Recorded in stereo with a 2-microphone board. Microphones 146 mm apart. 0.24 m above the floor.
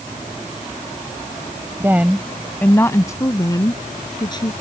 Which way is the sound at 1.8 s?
20° right (ahead or behind).